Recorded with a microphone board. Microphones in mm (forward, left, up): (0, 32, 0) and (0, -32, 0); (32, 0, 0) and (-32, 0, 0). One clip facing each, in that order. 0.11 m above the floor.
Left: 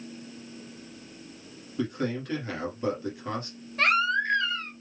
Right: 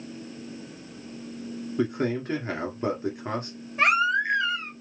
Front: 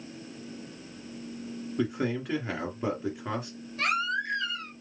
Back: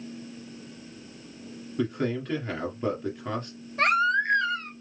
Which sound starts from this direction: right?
A man speaking, at 1.8 s.